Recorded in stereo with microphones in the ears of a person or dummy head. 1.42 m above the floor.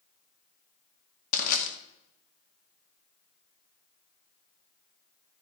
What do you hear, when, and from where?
1.3 s crushing: 50° left (ahead or behind), 2 m